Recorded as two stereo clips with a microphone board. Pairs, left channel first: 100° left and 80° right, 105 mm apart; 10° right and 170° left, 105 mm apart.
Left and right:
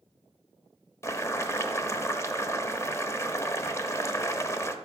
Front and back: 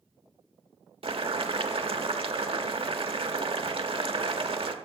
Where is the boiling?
160° left, 0.9 m.